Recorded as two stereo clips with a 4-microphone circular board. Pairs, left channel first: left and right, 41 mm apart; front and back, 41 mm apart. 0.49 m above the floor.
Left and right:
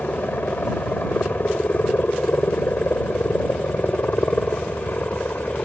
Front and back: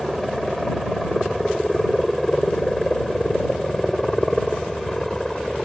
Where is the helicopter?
90° left; by 5.7 s 80° left.